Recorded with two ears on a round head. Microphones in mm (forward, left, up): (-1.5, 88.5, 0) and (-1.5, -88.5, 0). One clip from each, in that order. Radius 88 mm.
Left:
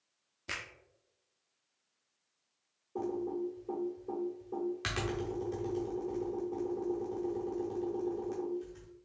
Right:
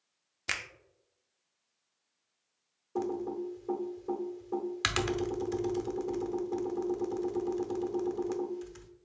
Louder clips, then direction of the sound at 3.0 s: Right 2 dB; 50° right (ahead or behind).